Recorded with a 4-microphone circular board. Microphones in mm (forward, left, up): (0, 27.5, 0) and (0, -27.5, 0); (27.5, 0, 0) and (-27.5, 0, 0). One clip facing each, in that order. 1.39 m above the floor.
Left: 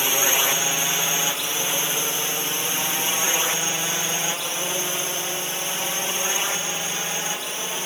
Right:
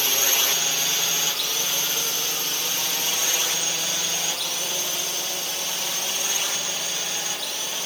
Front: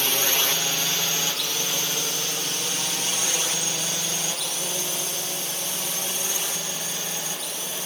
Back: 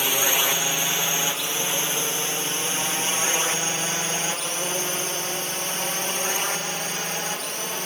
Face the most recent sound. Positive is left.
turn(degrees=150)